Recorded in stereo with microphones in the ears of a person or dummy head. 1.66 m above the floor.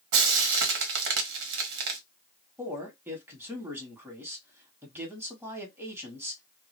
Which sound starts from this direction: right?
Frying, at 0.1 s.